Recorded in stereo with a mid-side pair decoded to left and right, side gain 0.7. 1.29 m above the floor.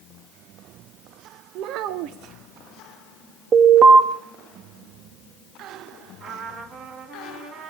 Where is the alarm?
45° right, 2 m.